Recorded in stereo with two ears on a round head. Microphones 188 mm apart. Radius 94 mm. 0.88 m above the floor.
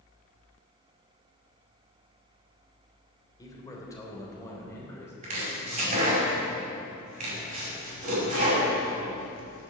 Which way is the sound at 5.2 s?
35° right (ahead or behind).